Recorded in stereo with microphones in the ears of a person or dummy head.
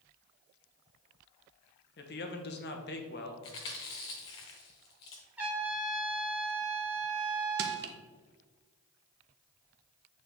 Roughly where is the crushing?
Right.